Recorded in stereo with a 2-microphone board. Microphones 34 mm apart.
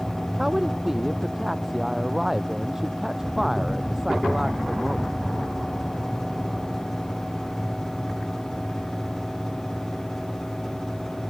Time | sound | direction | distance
0.4 | a woman speaking | 10° right (ahead or behind) | ?